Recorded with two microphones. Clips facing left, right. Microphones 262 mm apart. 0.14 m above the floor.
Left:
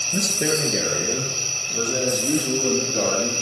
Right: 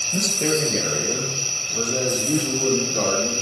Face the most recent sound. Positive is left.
turn(degrees=20)  # may be behind; listen again after turning